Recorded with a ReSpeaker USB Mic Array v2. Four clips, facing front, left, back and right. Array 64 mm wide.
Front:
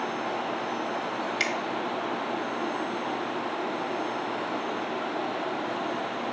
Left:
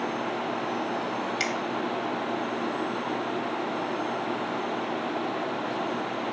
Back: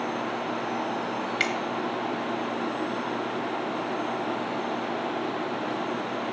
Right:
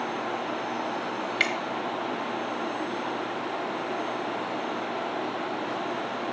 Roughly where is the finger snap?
Right.